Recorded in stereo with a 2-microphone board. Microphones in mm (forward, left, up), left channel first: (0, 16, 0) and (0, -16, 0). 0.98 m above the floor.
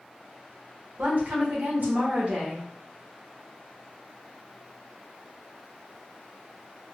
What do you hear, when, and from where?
1.0 s a woman speaking: 55° right (ahead or behind), 1.3 m